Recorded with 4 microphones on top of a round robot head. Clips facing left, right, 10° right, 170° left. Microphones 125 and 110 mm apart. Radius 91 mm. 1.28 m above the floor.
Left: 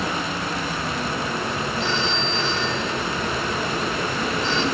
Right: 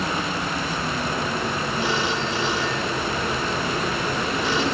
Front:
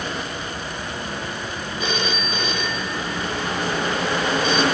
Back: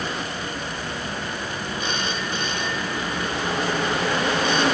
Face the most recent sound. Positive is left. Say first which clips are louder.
# right 2 dB, front 5 dB
turn(degrees=-10)